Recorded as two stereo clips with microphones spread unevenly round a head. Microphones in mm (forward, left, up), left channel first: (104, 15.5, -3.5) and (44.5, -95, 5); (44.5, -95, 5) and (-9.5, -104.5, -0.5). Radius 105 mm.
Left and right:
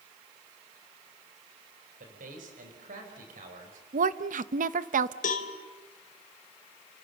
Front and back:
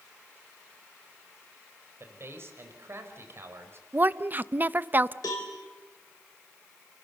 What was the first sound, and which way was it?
A man speaking, 130° right.